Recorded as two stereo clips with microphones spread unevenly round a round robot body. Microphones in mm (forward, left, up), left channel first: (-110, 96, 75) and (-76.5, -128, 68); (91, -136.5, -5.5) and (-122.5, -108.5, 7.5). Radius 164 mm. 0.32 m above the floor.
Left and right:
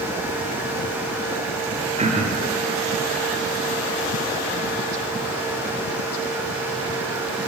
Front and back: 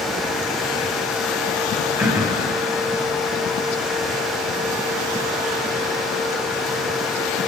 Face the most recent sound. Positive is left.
turn(degrees=-110)